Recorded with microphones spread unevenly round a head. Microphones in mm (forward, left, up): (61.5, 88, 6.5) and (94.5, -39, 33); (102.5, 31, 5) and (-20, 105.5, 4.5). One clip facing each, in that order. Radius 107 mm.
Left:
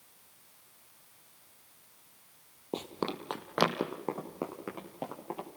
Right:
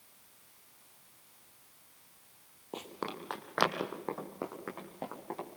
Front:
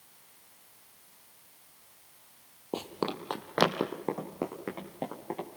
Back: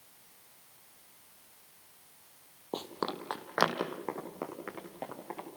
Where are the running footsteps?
45° left, 2.5 m; by 5.5 s 25° left, 6 m.